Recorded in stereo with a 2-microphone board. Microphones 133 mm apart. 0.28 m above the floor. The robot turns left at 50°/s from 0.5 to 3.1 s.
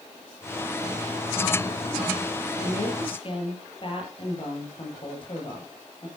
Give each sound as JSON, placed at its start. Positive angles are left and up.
{"t": 2.6, "sound": "a woman speaking", "side_deg": 65, "distance_m": 6.5}